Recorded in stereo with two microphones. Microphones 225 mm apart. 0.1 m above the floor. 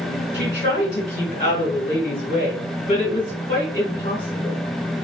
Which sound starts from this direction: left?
A woman speaking, at 0.3 s.